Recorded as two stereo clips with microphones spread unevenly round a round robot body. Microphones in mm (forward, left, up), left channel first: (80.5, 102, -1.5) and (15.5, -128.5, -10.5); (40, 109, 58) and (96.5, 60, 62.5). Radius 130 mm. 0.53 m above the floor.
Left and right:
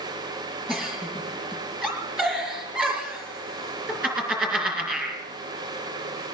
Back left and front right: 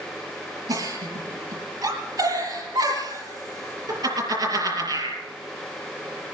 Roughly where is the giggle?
Ahead.